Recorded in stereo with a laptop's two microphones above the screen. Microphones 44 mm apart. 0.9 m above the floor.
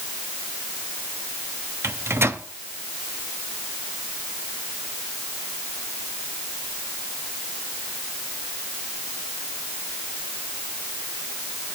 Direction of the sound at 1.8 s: 70° right (ahead or behind).